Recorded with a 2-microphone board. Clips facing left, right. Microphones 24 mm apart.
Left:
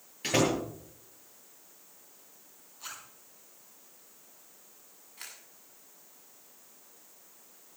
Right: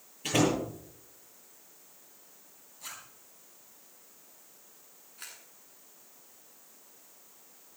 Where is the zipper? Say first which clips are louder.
Left 1 dB; 30° left (ahead or behind), 5 m.